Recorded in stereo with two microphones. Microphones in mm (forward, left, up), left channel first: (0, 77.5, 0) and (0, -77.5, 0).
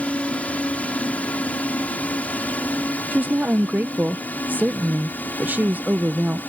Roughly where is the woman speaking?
Centre.